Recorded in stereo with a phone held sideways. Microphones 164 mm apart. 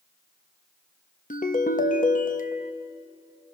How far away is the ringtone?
About 1.0 m.